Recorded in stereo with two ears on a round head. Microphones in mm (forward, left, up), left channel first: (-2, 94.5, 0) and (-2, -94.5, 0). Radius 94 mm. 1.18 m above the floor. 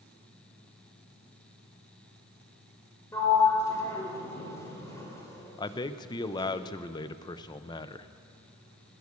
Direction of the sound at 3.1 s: 15° left (ahead or behind).